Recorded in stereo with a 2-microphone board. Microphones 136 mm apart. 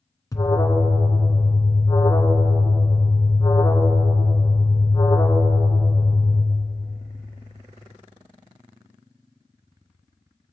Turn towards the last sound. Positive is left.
turn(degrees=25)  # may be behind; listen again after turning